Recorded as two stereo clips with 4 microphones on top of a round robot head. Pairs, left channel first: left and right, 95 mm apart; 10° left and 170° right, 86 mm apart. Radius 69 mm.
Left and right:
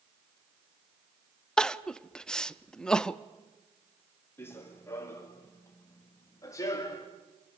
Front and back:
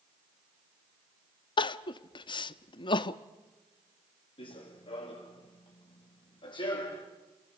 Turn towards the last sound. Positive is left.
turn(degrees=40)